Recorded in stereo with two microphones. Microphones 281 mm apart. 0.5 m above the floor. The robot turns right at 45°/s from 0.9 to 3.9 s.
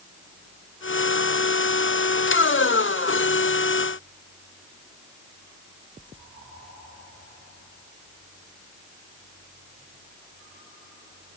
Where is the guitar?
I don't hear a guitar.